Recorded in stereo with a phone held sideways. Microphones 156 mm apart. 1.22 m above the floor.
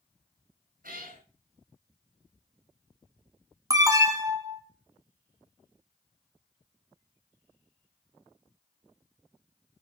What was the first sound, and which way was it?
A cat meowing, 65° right (ahead or behind).